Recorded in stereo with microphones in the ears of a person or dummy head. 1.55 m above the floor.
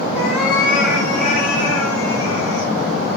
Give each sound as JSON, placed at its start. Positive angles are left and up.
{"t": 0.1, "sound": "a cat meowing", "side_deg": 60, "distance_m": 2.0}